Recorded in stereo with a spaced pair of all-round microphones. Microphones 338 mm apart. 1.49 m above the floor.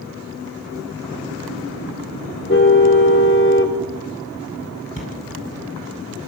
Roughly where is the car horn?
Left.